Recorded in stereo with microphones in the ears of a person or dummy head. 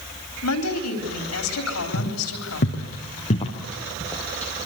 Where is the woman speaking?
85° left, 4 m.